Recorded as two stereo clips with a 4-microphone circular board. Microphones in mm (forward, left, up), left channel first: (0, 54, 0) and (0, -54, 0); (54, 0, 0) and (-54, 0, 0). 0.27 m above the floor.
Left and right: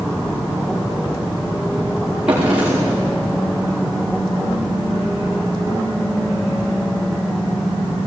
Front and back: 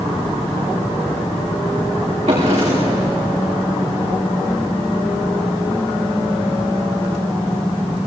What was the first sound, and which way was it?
A drawer, 170° right.